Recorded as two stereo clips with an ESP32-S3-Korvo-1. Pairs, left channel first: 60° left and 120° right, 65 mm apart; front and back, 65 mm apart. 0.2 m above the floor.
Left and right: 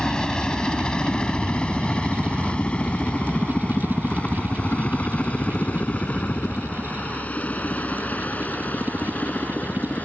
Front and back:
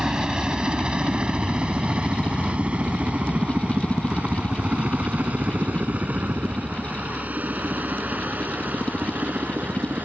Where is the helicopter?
120° left.